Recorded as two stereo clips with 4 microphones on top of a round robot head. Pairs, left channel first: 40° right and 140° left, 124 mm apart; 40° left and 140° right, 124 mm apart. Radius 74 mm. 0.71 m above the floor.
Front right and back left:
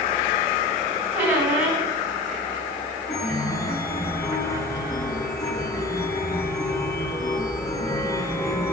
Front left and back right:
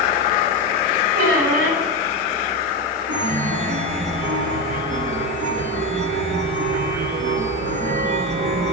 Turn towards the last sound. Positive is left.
turn(degrees=-105)